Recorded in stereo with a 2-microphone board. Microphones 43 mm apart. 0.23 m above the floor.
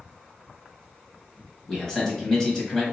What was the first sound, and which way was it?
A man speaking, 10° left (ahead or behind).